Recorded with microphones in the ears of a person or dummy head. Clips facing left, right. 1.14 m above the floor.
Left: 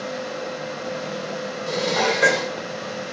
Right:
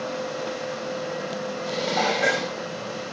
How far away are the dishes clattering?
About 3.5 m.